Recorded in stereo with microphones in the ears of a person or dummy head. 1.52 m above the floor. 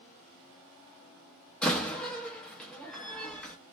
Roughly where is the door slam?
Centre.